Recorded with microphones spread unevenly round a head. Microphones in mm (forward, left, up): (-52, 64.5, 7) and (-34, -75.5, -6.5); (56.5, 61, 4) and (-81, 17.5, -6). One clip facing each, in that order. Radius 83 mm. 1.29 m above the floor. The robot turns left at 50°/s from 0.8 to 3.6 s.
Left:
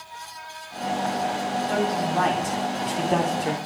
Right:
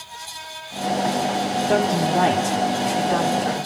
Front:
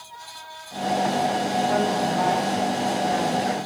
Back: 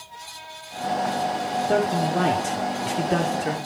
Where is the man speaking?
105° right, 4.5 m; by 3.6 s 160° left, 4.5 m.